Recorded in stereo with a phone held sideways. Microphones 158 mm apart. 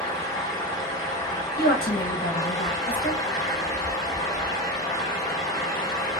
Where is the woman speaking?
80° left, 0.7 m.